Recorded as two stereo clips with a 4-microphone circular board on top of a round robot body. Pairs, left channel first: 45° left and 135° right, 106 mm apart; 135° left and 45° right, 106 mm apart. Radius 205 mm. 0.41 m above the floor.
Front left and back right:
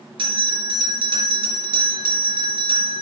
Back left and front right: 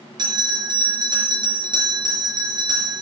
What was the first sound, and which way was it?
A bell, 95° right.